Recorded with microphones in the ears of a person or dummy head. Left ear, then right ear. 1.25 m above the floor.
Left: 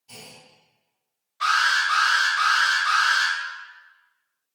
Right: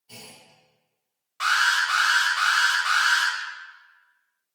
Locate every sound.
0.1 s a clunk: 80° left, 1.8 m
1.4 s an alarm: 50° right (ahead or behind), 1.0 m